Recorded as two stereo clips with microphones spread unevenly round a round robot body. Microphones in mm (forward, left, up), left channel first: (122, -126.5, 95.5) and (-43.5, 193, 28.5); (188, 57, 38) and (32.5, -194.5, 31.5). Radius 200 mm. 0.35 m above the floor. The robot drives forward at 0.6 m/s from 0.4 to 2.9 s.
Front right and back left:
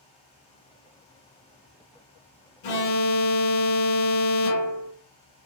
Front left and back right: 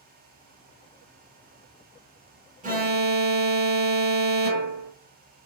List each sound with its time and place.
2.6 s an alarm: 80° right, 0.8 m; by 4.9 s 100° right, 0.8 m